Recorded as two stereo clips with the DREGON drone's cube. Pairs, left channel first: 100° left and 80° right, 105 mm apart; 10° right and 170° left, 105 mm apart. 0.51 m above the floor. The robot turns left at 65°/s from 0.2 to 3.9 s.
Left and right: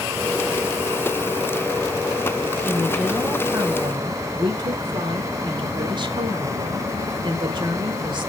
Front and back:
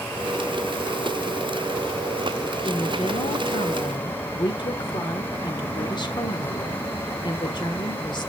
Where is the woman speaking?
35° left, 1.7 m; by 8.3 s 45° right, 1.7 m.